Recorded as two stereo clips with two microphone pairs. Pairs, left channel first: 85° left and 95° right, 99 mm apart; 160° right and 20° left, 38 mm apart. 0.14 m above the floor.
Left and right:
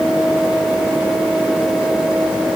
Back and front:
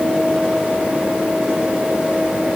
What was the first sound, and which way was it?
Only background noise.